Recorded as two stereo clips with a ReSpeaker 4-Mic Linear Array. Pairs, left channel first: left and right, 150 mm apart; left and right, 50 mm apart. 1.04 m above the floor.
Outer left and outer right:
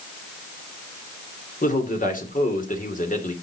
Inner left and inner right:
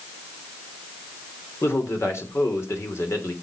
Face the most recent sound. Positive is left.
turn(degrees=70)  # may be behind; listen again after turning